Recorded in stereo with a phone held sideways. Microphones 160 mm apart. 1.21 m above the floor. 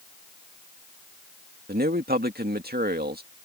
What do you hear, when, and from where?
1.7 s a man speaking: 75° right (ahead or behind)